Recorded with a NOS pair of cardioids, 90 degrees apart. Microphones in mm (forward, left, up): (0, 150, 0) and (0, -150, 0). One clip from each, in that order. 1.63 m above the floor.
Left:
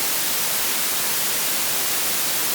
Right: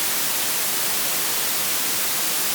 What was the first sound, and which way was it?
Only background noise.